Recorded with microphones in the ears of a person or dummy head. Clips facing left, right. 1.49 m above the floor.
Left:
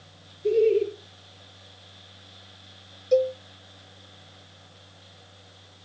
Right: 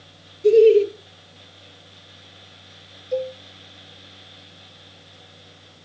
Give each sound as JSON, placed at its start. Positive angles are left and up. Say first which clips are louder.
{"t": 0.4, "sound": "laughter", "louder": "right 8 dB", "side_deg": -85, "distance_m": 1.7}
{"t": 3.1, "sound": "a cowbell", "louder": "left 5 dB", "side_deg": 50, "distance_m": 0.6}